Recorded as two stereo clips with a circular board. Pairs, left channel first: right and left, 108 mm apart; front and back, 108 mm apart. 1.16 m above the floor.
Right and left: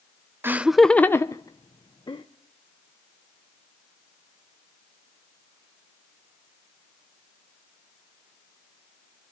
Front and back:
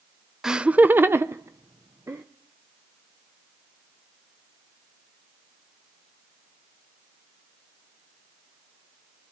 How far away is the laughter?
About 0.6 m.